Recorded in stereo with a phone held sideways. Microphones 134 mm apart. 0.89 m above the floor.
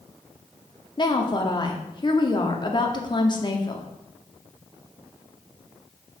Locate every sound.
1.0 s a woman speaking: 35° left (ahead or behind), 1.7 m